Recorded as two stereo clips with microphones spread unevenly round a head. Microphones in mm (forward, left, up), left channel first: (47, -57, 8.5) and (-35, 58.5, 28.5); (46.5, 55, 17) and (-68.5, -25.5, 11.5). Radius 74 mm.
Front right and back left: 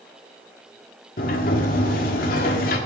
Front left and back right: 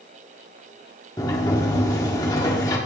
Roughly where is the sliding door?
Ahead right.